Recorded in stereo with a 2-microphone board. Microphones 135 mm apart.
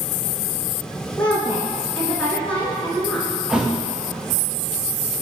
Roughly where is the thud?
Centre.